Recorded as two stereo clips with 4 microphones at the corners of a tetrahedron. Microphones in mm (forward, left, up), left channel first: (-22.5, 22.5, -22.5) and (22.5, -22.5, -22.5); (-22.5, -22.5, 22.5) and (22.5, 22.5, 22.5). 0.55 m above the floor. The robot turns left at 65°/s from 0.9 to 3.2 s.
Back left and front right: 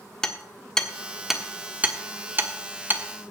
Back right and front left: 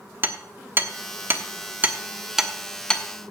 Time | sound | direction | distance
0.2 | hammering | 65° left | 1.2 m